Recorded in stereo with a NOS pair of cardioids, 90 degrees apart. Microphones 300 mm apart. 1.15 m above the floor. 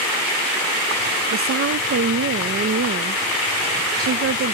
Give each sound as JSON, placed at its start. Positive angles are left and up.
{"t": 1.3, "sound": "a woman speaking", "azimuth_deg": -45}